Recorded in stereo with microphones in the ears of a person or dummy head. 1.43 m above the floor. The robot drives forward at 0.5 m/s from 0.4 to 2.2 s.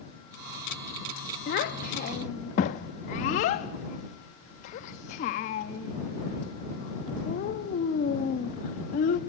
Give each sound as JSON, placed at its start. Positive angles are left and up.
{"t": 1.5, "sound": "a child speaking", "side_deg": 40, "distance_m": 1.0}